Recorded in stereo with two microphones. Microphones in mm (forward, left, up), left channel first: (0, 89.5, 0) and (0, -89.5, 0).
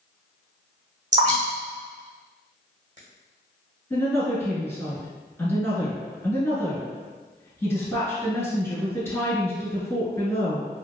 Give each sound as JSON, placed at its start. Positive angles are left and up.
{"t": 1.1, "sound": "dripping", "side_deg": -40, "distance_m": 1.6}
{"t": 3.9, "sound": "a woman speaking", "side_deg": 15, "distance_m": 1.1}